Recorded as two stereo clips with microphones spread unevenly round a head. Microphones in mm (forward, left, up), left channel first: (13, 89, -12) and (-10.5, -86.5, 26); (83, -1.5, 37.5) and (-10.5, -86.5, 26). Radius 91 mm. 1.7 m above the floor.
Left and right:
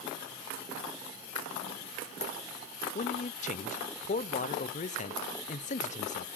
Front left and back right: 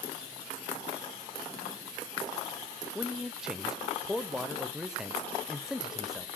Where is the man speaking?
135° left, 0.9 m.